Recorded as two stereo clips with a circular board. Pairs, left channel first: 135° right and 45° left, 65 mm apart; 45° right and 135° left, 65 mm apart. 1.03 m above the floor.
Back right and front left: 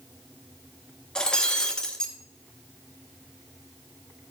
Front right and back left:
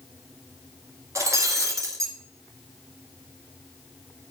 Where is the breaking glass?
150° left, 1.5 m.